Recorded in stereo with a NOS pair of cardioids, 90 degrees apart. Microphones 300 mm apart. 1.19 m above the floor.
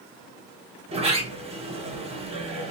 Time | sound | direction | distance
0.9 | a sliding door | 20° right | 1.6 m